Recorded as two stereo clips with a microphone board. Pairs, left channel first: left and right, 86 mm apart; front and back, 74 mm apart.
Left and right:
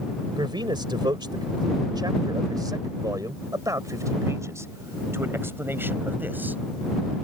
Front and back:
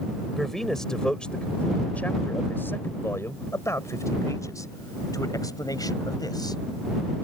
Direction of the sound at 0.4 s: 85° right.